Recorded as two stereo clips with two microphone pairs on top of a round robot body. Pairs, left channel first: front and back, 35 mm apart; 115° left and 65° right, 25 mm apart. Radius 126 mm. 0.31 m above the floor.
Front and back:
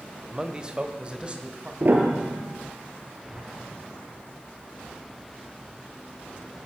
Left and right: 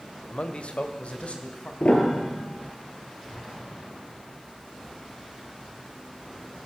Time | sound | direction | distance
0.3 | a man speaking | 115° left | 2.0 m
1.8 | a piano | 145° left | 3 m
3.3 | an explosion | 125° left | 8.5 m